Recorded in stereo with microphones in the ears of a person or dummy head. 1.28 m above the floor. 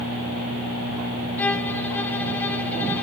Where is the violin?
5° left (ahead or behind), 0.8 m.